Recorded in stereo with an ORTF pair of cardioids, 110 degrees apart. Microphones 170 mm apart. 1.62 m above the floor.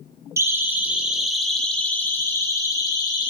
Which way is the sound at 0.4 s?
15° right.